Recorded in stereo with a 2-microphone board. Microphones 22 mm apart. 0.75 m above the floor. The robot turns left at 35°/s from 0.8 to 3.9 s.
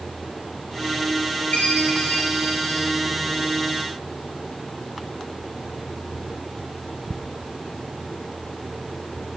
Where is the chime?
85° left, 7 m; by 2.9 s 40° left, 7 m.